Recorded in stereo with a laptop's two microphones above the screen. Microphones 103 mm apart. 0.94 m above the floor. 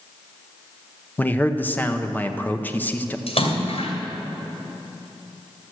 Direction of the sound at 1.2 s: 20° left (ahead or behind).